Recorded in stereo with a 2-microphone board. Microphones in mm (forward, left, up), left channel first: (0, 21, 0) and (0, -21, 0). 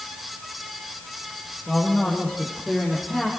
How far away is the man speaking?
About 6 m.